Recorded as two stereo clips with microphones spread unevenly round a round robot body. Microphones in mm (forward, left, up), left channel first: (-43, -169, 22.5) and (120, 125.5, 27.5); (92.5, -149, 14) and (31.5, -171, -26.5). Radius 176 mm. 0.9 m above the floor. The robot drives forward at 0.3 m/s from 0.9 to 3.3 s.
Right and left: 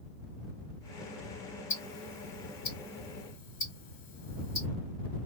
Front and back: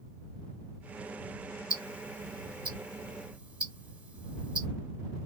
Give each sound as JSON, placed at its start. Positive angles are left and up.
{"t": 1.7, "sound": "ticking", "azimuth_deg": 180, "distance_m": 1.9}